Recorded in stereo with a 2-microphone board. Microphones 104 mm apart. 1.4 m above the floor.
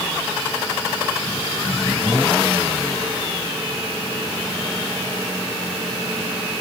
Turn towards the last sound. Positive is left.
No sound to turn to.